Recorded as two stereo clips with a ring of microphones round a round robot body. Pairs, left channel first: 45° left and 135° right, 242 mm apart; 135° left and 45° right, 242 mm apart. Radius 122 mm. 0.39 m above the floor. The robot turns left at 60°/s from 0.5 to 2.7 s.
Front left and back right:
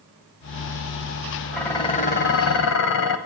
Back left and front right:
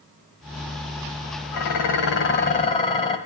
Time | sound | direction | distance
1.5 | dishes clattering | 135° left | 1.4 m